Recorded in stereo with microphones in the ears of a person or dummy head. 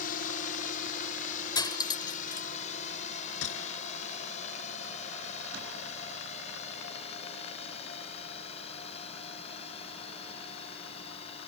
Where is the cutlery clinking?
20° left (ahead or behind).